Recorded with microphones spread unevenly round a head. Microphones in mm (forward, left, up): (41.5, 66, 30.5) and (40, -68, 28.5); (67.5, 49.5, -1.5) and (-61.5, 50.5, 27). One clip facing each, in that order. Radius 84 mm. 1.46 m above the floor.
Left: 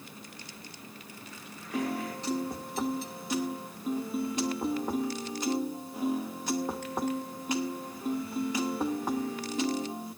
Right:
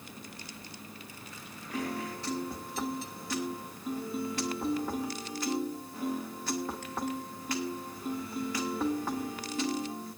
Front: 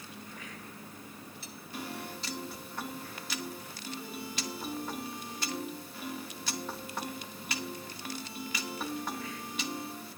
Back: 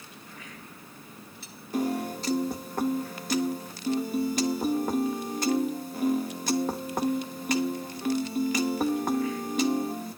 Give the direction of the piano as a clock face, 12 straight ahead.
7 o'clock.